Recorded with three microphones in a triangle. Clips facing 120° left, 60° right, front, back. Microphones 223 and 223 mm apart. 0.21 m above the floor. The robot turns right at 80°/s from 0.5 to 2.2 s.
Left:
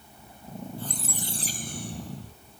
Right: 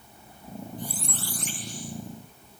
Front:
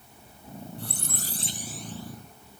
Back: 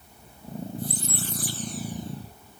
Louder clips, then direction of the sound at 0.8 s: Even, back 6 dB; 10° left.